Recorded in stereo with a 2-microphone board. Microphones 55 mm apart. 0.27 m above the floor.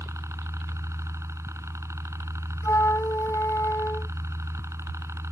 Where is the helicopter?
65° right (ahead or behind).